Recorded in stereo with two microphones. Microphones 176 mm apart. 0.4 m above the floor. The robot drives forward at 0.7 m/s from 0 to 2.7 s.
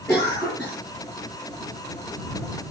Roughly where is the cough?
Centre.